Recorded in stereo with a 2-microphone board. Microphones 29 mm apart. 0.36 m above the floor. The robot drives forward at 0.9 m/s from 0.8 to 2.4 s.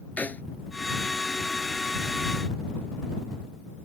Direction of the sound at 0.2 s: 80° left.